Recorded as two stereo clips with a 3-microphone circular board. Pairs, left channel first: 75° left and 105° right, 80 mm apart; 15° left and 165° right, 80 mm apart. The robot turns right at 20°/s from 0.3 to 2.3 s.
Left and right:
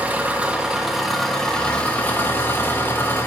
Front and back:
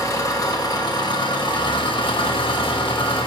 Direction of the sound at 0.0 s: 30° right.